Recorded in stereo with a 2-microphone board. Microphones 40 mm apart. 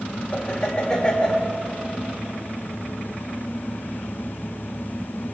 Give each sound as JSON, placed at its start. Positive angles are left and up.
{"t": 0.3, "sound": "laughter", "side_deg": 15, "distance_m": 2.0}